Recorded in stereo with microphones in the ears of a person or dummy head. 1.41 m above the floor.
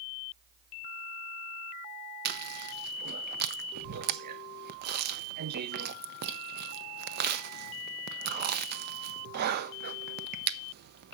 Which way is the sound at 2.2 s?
55° right (ahead or behind).